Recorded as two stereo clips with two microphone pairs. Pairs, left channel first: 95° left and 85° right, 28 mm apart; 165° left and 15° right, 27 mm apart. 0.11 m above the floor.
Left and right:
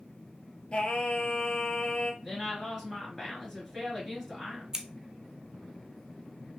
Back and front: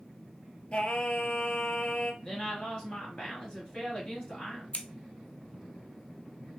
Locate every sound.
0.7 s singing: 135° left, 0.8 m
2.2 s a woman speaking: 170° right, 1.7 m
4.7 s scissors: 150° right, 0.5 m